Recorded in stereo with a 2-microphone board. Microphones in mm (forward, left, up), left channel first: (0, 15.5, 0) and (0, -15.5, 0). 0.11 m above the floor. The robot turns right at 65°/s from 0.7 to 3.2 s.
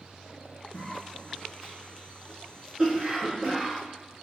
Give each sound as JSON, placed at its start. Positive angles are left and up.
{"t": 0.7, "sound": "a cough", "side_deg": 20, "distance_m": 1.4}